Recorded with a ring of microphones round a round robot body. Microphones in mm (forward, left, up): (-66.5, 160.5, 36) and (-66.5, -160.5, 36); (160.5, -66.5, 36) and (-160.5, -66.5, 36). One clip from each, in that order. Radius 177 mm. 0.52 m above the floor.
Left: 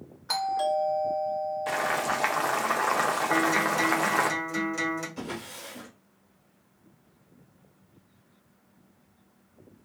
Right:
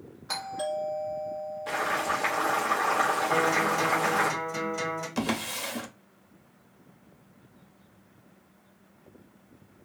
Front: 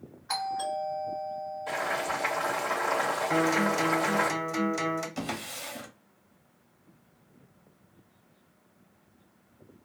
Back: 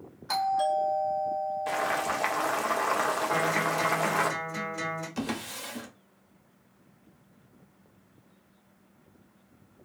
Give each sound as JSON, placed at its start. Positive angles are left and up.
{"t": 0.3, "sound": "a doorbell", "azimuth_deg": 125, "distance_m": 1.5}
{"t": 1.7, "sound": "boiling", "azimuth_deg": 140, "distance_m": 0.9}
{"t": 3.3, "sound": "a guitar", "azimuth_deg": 35, "distance_m": 1.3}
{"t": 5.2, "sound": "a drawer", "azimuth_deg": -95, "distance_m": 0.6}